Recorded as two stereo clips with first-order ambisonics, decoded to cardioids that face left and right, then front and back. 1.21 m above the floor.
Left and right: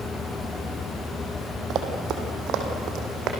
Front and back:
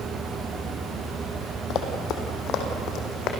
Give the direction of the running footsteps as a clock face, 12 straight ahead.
1 o'clock.